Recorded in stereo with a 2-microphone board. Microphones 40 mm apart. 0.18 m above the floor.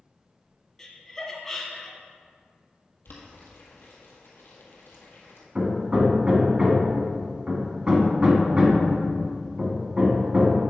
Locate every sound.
0.8 s laughter: 15° left (ahead or behind), 1.4 m
3.0 s boiling: 65° left (ahead or behind), 1.8 m
5.5 s hammering: 25° right (ahead or behind), 1.2 m